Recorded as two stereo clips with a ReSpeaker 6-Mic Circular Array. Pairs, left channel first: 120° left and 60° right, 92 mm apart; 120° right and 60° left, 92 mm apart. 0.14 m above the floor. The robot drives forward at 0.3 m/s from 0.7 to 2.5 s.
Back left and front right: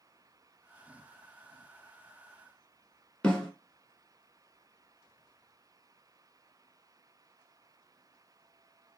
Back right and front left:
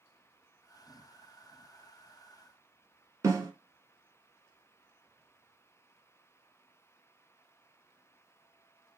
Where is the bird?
I don't hear a bird.